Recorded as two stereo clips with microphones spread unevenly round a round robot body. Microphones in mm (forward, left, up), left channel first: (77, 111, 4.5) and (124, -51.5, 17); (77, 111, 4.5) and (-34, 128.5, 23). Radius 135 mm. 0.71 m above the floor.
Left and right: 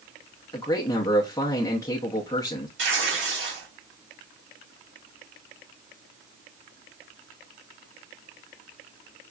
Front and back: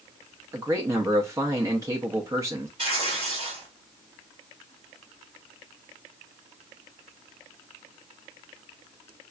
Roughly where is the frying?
I don't hear frying.